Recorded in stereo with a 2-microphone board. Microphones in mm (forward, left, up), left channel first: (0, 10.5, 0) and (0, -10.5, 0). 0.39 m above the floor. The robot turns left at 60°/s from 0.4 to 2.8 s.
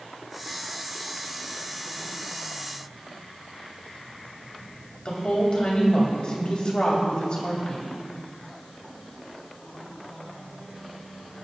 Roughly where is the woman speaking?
Left.